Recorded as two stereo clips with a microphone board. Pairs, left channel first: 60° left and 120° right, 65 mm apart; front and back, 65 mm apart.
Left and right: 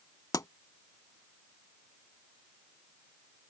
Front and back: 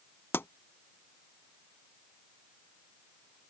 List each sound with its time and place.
0.3 s a pop: 50° left